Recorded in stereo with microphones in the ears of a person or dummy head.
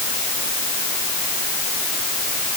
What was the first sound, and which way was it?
Only background noise.